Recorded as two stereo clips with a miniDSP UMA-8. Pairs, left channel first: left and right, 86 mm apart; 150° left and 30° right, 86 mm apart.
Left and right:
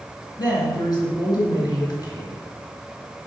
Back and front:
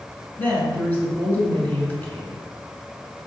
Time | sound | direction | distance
0.4 | a woman speaking | 90° left | 2.5 m